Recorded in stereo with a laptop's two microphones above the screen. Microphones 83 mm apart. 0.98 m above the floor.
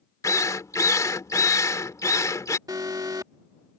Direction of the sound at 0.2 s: 40° left (ahead or behind).